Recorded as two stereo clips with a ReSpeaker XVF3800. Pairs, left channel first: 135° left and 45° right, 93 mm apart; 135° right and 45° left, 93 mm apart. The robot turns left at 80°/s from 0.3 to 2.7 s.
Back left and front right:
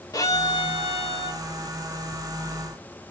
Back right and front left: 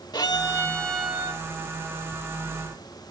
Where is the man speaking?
I don't hear a man speaking.